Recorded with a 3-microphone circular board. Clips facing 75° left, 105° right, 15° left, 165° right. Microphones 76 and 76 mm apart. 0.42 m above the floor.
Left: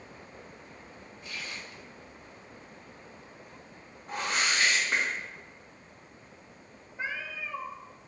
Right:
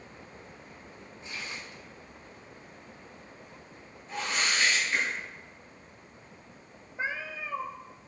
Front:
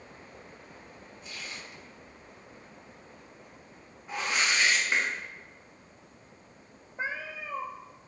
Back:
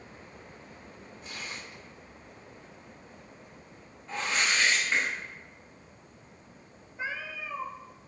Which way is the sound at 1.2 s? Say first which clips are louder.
Right 1 dB, back 2 dB; 160° right.